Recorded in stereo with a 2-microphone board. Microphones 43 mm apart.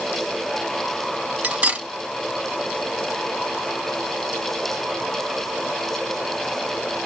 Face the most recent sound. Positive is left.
turn(degrees=-35)  # may be behind; listen again after turning